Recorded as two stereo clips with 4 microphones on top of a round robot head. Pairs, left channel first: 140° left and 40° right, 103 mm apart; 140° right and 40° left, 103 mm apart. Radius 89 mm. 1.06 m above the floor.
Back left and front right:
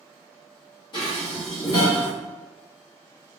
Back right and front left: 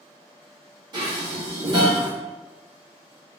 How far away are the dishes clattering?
About 1.2 m.